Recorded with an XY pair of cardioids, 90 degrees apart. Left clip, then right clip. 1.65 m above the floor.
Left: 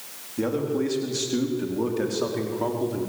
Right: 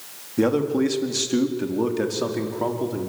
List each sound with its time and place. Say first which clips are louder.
0.4 s a man speaking: right 5 dB; 55° right, 4 m; by 3.1 s 15° right, 5.5 m